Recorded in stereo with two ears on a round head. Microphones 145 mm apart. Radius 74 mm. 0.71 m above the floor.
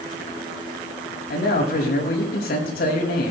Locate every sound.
1.3 s a man speaking: 70° left (ahead or behind), 6 m